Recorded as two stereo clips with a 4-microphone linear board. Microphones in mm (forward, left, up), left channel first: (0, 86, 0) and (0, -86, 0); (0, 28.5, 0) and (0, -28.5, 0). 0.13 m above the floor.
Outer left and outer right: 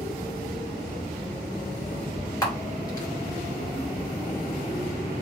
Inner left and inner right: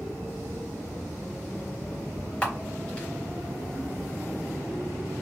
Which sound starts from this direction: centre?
A camera shutter, at 2.4 s.